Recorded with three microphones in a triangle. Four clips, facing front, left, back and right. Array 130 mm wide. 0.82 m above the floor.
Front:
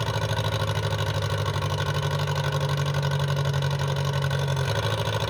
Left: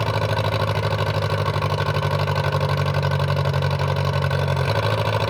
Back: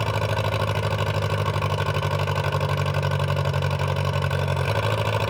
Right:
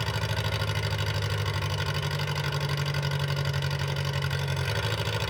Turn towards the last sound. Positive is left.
turn(degrees=110)